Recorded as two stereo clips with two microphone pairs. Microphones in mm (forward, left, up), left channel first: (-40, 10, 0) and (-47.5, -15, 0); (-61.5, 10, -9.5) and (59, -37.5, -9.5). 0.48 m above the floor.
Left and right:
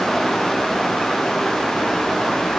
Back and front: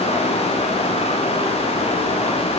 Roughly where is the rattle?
No rattle in this recording.